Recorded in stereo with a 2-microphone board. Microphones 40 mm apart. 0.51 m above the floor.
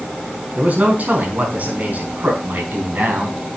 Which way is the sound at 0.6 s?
45° right (ahead or behind).